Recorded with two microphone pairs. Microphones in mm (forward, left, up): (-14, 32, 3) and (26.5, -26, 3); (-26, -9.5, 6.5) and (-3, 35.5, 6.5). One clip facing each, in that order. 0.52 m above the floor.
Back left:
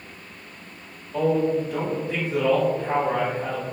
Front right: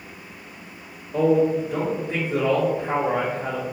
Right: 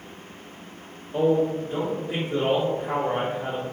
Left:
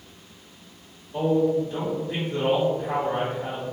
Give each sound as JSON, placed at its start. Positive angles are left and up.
{"t": 1.1, "sound": "a man speaking", "azimuth_deg": -90, "distance_m": 1.5}